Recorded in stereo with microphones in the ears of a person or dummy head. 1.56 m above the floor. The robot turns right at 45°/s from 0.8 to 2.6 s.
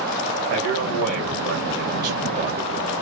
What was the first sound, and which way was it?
A man speaking, 105° right.